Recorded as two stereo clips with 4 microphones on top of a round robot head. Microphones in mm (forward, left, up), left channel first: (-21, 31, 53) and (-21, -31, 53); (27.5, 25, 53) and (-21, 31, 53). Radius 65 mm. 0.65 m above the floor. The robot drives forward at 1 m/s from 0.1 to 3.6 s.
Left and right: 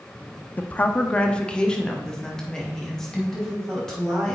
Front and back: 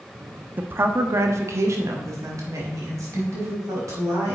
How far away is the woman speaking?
About 0.8 m.